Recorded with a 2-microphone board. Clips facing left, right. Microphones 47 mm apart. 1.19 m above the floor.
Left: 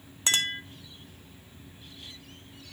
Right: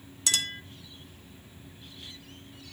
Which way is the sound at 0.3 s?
30° left (ahead or behind).